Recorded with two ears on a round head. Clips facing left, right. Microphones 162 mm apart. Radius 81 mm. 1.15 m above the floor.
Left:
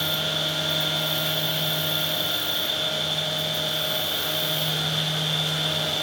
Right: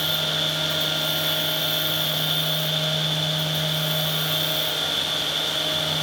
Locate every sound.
0.0 s an insect: 15° left (ahead or behind), 1.3 m